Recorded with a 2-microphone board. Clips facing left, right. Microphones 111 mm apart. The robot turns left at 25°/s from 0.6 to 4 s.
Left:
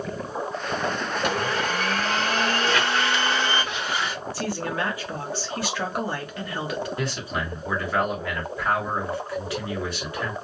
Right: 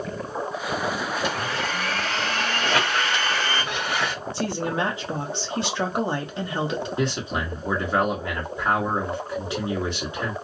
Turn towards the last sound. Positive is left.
turn(degrees=-20)  # may be behind; listen again after turning